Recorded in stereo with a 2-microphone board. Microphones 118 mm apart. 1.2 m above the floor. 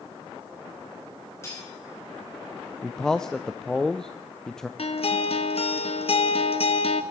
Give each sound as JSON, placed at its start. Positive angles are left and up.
{"t": 1.4, "sound": "cutlery clinking", "side_deg": 25, "distance_m": 4.0}
{"t": 2.8, "sound": "a man speaking", "side_deg": 5, "distance_m": 0.5}
{"t": 4.8, "sound": "a guitar", "side_deg": 60, "distance_m": 1.1}